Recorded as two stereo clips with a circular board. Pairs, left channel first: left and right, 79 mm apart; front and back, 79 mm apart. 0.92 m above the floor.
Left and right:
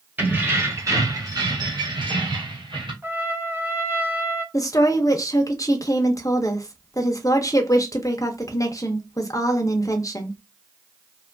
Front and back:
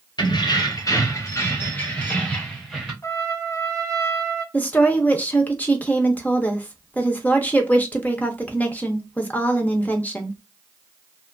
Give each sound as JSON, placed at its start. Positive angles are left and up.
{"t": 0.2, "sound": "keys jangling", "azimuth_deg": -20, "distance_m": 1.0}
{"t": 3.0, "sound": "a trumpet", "azimuth_deg": -40, "distance_m": 0.8}
{"t": 4.5, "sound": "a woman speaking", "azimuth_deg": 65, "distance_m": 0.5}